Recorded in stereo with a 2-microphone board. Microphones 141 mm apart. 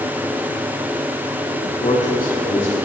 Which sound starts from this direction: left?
A man speaking, at 1.6 s.